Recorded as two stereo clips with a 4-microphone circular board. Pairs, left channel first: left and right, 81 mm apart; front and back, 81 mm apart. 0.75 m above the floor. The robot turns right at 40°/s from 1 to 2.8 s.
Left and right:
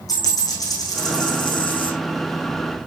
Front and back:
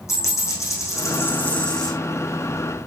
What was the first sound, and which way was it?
A dropped coin, 50° left.